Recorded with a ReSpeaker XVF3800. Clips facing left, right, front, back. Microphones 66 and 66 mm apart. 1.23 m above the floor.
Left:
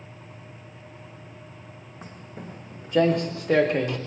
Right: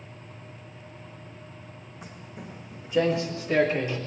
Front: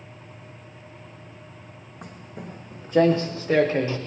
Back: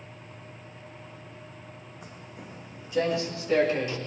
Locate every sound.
2.0 s footsteps: 35° left, 5 m; by 4.0 s 60° left, 5 m